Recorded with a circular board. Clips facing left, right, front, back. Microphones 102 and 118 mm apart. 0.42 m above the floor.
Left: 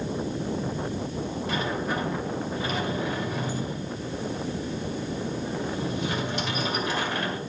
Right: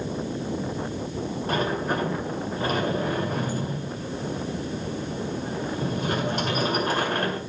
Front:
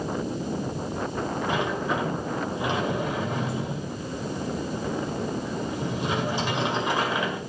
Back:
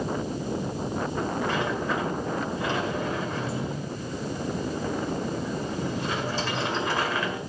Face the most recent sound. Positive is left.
turn(degrees=-70)